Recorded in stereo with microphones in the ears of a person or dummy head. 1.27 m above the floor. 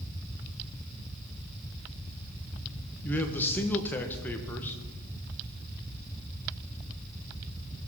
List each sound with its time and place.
3.0 s a man speaking: 15° left (ahead or behind), 1.4 m